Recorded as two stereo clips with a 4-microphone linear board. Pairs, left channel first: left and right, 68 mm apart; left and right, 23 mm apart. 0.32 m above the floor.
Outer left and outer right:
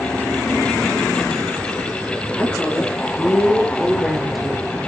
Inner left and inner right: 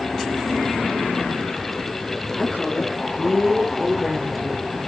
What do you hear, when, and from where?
2.4 s a woman speaking: 20° left (ahead or behind), 7 m; by 4.9 s 5° right (ahead or behind), 7.5 m